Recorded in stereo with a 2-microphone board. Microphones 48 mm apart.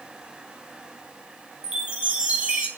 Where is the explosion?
No explosion in this recording.